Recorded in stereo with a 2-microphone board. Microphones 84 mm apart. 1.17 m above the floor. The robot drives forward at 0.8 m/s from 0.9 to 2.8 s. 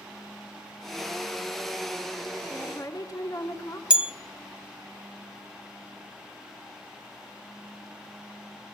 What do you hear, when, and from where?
2.5 s a woman speaking: 40° left (ahead or behind), 2.5 m; by 3.8 s 45° left (ahead or behind), 2.5 m
3.9 s a bell: 10° right (ahead or behind), 0.6 m